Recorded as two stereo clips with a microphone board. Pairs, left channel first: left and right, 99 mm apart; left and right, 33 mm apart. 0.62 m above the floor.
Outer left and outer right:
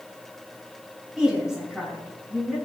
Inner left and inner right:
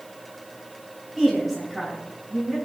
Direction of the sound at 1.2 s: 5° right (ahead or behind).